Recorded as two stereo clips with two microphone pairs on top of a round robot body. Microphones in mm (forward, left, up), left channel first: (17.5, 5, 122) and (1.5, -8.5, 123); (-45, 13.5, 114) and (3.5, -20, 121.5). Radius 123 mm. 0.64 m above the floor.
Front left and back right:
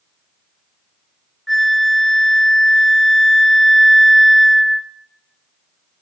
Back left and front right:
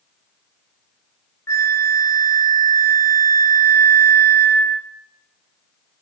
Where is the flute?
130° left, 1.3 m.